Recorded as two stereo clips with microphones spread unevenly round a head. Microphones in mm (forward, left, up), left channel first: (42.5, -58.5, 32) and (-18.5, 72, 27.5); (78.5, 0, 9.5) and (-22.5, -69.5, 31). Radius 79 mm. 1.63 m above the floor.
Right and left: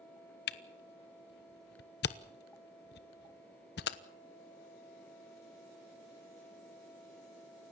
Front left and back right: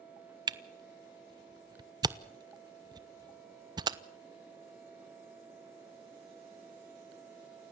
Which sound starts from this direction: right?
A camera shutter, at 0.5 s.